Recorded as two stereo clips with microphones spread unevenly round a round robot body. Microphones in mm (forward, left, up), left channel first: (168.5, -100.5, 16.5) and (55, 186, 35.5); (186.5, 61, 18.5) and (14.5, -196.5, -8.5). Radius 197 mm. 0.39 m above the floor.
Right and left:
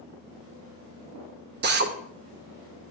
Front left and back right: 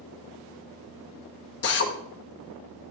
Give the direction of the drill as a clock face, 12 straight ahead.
9 o'clock.